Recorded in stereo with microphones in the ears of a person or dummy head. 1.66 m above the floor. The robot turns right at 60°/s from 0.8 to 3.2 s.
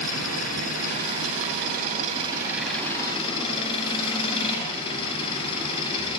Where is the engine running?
115° right, 9 m; by 6.2 s 25° left, 9 m.